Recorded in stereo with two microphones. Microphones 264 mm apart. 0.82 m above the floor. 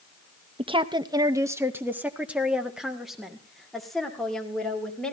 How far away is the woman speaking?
About 0.6 m.